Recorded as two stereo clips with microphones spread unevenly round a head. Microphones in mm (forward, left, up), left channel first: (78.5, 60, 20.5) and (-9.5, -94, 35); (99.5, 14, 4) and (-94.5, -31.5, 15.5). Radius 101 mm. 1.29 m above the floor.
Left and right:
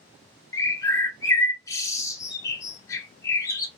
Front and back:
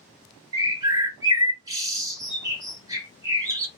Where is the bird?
120° left, 0.7 m.